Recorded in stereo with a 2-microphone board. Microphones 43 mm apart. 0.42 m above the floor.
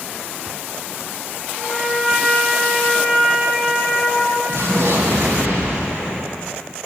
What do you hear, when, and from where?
1.6 s a trumpet: 5° right (ahead or behind), 3.5 m
4.5 s an explosion: 75° right (ahead or behind), 1.8 m